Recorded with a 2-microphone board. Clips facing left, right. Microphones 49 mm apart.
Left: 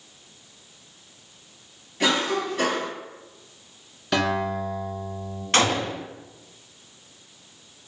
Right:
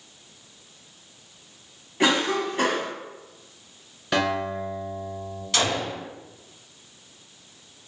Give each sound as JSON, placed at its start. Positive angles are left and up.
{"t": 2.0, "sound": "a cough", "side_deg": -30, "distance_m": 1.4}
{"t": 4.1, "sound": "a guitar", "side_deg": -5, "distance_m": 1.5}
{"t": 5.5, "sound": "a gunshot", "side_deg": 45, "distance_m": 0.5}